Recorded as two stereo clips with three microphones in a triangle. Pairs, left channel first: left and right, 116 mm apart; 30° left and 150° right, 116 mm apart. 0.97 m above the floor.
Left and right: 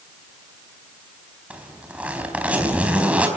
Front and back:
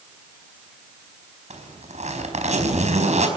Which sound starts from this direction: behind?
A zipper, at 1.5 s.